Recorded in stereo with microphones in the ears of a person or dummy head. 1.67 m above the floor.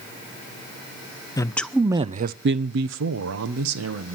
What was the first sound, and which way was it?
A man speaking, 20° left (ahead or behind).